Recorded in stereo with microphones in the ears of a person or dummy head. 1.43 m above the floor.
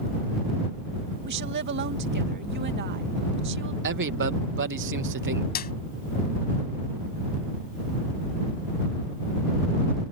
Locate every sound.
1.2 s a woman speaking: 55° right (ahead or behind)
3.8 s a man speaking: 55° right (ahead or behind)
5.5 s a clap: 45° left (ahead or behind)